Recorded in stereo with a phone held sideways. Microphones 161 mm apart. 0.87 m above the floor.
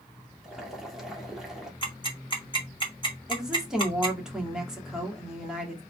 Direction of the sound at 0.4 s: 5° right (ahead or behind).